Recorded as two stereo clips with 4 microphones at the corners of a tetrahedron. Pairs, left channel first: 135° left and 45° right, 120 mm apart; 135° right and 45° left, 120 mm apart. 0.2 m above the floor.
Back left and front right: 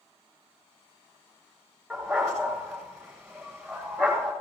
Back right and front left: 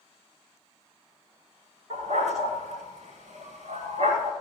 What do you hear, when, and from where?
1.9 s a dog barking: 50° left, 8.5 m